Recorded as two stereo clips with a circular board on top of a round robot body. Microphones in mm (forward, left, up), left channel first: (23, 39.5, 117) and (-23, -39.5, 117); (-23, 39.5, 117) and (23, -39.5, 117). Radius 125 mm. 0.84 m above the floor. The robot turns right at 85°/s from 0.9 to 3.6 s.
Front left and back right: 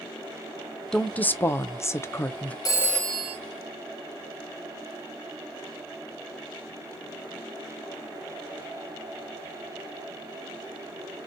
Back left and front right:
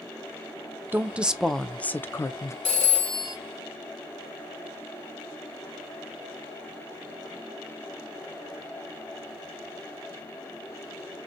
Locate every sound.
0.9 s a woman speaking: 15° right, 0.5 m; by 2.5 s 125° left, 0.5 m
2.6 s a phone ringing: 115° left, 0.8 m; by 3.4 s 175° left, 0.8 m